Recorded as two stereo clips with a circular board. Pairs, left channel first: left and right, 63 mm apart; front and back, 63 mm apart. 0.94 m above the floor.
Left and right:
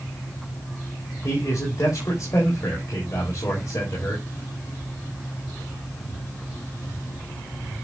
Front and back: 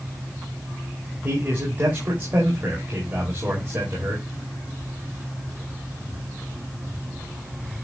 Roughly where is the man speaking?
Behind left.